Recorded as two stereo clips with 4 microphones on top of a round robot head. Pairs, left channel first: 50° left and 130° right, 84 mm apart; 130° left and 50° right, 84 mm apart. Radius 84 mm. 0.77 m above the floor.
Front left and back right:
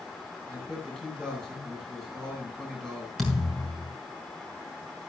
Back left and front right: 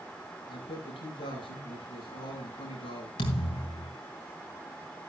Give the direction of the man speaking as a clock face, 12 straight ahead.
8 o'clock.